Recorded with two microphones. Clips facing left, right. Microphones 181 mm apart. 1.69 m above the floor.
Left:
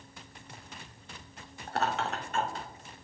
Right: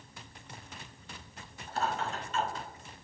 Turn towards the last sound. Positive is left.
turn(degrees=35)  # may be behind; listen again after turning